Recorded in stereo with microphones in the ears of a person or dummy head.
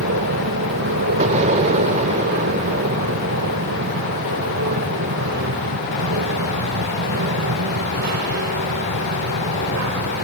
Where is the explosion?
40° right (ahead or behind).